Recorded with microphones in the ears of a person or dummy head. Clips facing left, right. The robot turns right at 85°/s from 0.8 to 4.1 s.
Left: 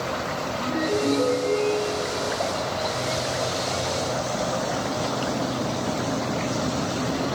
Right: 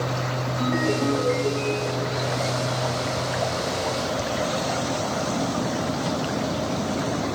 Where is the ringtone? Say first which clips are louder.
Right 1 dB; 100° right, 4 m; by 2.2 s 20° left, 4 m.